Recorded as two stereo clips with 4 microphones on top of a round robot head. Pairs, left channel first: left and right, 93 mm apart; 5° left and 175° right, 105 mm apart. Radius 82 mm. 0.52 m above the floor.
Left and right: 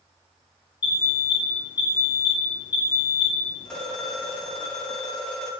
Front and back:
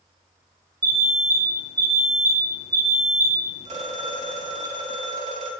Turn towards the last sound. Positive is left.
turn(degrees=170)